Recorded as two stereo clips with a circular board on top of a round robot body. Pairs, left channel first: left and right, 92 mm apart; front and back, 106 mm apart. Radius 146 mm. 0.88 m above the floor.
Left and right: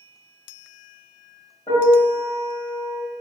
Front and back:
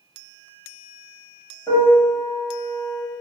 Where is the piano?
60° left, 0.8 m.